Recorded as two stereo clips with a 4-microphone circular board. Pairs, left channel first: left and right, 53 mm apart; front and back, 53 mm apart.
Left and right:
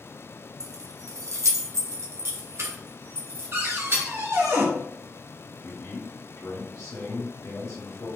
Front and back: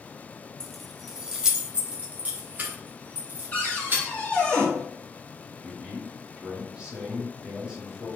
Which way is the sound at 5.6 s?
110° left.